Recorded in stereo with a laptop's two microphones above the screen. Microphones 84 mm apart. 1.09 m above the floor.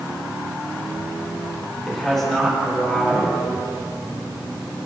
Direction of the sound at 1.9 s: 10° left (ahead or behind).